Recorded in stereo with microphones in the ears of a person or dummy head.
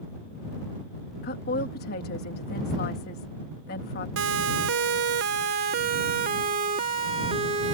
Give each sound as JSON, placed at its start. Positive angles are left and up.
{"t": 1.2, "sound": "a woman speaking", "side_deg": 45}
{"t": 4.2, "sound": "a siren", "side_deg": -70}